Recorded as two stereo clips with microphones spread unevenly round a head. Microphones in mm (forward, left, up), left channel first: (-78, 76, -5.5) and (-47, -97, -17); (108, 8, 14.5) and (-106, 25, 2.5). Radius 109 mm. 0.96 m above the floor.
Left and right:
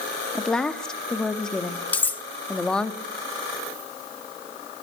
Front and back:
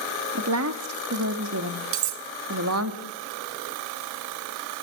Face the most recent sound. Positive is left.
turn(degrees=180)